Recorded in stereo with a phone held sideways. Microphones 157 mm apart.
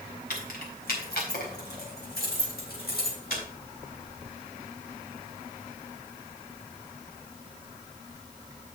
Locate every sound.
0.3 s keys jangling: 70° left (ahead or behind), 4 m; by 3.4 s 75° left (ahead or behind), 6 m